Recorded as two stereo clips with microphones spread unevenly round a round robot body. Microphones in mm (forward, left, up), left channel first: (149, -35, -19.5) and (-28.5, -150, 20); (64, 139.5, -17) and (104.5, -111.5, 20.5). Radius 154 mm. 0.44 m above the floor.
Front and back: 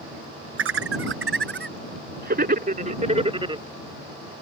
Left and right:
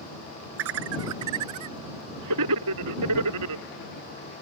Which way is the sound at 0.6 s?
130° right.